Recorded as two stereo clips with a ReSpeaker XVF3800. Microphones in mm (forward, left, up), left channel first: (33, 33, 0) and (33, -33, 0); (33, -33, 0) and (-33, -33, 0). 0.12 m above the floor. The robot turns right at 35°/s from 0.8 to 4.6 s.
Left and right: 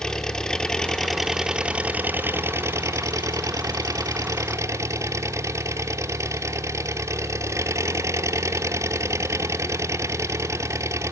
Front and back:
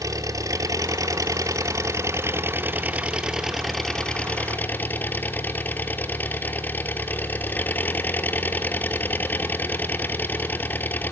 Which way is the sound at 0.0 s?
170° left.